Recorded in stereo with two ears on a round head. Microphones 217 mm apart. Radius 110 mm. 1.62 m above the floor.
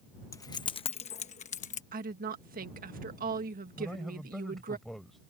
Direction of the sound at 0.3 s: 15° left (ahead or behind).